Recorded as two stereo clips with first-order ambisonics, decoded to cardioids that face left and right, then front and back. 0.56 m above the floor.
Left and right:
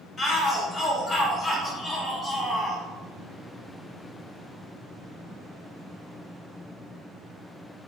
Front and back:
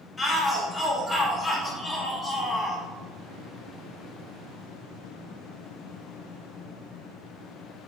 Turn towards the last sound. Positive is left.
turn(degrees=50)